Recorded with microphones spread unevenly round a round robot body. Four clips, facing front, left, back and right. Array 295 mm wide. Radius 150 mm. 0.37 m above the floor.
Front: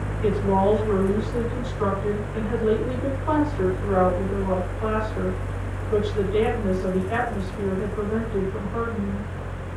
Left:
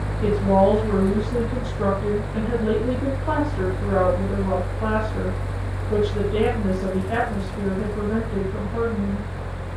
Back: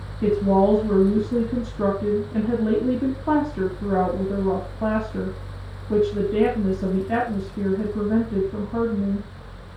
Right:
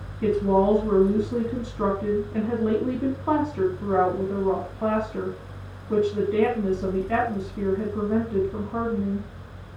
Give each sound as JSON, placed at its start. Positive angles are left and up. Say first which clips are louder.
{"t": 0.2, "sound": "a woman speaking", "louder": "left 2 dB, back 2 dB", "azimuth_deg": 175, "distance_m": 5.5}